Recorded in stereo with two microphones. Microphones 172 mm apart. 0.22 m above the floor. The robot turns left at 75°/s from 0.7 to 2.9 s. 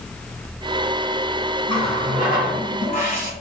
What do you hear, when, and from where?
1.7 s a running tap: 150° left, 1.6 m; by 3.3 s 60° left, 1.6 m